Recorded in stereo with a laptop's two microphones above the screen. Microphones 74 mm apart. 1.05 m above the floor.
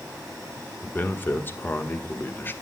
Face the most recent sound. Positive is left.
turn(degrees=30)  # may be behind; listen again after turning